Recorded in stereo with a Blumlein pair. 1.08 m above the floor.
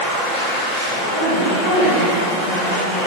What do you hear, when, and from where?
0.0 s a machine running: 25° left, 0.9 m
1.1 s a woman speaking: 65° left, 1.1 m